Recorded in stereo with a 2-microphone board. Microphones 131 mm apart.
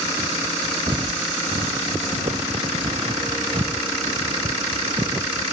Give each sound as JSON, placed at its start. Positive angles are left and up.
{"t": 0.9, "sound": "footsteps", "side_deg": -40}